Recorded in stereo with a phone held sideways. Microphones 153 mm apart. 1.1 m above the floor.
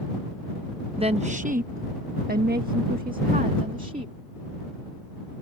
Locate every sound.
1.0 s a woman speaking: 35° right (ahead or behind); by 4.1 s 60° right (ahead or behind)